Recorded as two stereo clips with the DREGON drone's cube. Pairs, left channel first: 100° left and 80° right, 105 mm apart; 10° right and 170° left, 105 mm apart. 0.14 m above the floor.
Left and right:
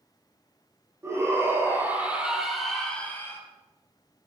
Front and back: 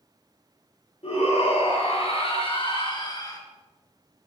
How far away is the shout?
About 4.5 m.